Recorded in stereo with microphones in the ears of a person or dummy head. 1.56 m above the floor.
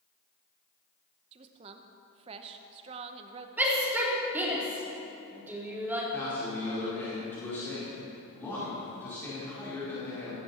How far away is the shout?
About 4 m.